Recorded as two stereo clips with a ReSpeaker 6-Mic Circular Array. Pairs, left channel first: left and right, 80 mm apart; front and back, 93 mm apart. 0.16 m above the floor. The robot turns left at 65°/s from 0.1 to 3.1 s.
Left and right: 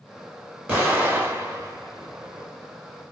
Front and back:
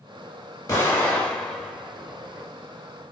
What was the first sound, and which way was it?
An explosion, 30° right.